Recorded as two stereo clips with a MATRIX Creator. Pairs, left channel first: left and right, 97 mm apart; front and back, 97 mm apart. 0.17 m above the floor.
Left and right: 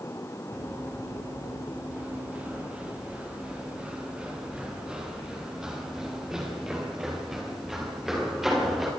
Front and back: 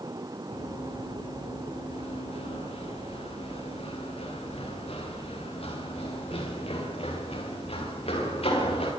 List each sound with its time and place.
0.5 s running footsteps: 20° right, 4.5 m; by 8.9 s 5° right, 9.5 m